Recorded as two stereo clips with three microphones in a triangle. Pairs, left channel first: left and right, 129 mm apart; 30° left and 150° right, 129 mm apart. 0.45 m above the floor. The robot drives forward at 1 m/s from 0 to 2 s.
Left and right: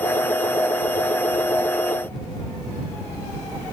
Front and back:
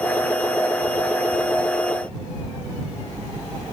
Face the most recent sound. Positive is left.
No sound to turn to.